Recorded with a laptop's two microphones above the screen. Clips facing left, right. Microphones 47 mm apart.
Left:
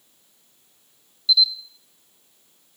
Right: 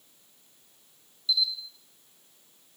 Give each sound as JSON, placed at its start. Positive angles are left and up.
{"t": 1.3, "sound": "a camera shutter", "side_deg": -35, "distance_m": 2.5}